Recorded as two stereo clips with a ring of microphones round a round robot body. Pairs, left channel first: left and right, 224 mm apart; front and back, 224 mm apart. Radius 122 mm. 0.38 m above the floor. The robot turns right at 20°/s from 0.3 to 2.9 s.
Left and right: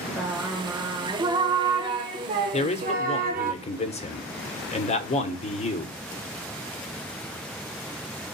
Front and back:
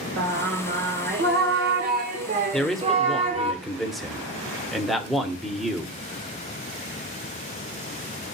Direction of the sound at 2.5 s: 80° left.